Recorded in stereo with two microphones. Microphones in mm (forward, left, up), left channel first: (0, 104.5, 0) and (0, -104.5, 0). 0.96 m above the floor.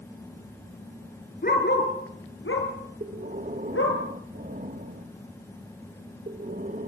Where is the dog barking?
45° left (ahead or behind), 3.5 m; by 4.0 s 80° left, 5 m.